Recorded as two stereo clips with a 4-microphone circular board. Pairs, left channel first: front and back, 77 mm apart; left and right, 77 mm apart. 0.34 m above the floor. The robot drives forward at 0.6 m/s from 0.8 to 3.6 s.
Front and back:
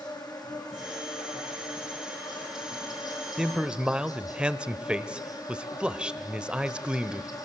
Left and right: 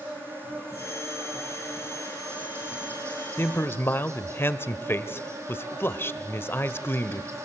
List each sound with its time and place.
0.0 s an insect: 30° right, 6.5 m; by 7.5 s 40° right, 5 m
3.4 s a man speaking: 100° left, 1.0 m; by 7.4 s 115° left, 1.0 m